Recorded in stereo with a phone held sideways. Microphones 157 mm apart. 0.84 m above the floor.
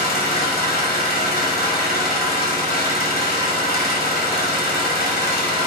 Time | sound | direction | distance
0.0 | an engine running | 70° left (ahead or behind) | 1.9 m